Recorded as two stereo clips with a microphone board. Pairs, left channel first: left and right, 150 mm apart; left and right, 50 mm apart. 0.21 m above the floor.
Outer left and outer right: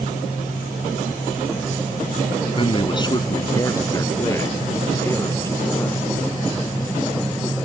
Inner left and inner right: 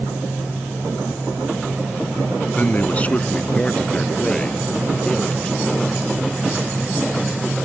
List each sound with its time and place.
2.6 s a man speaking: 35° left (ahead or behind); by 6.2 s 15° left (ahead or behind)